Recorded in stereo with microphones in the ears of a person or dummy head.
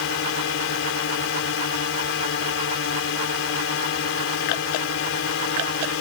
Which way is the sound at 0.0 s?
70° left (ahead or behind).